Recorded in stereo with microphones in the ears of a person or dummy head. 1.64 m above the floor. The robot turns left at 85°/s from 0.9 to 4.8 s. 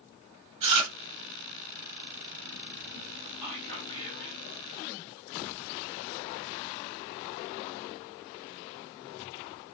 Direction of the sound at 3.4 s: 165° right.